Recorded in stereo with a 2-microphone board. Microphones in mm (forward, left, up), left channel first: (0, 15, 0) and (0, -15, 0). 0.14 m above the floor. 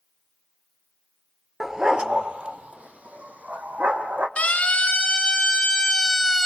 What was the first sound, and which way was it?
A dog barking, 15° right (ahead or behind).